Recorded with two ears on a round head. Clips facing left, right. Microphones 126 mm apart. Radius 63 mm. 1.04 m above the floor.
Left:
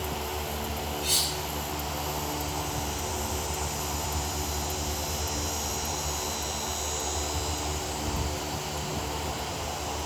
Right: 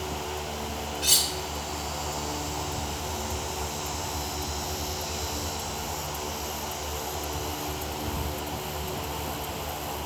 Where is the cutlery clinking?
80° right, 2.5 m.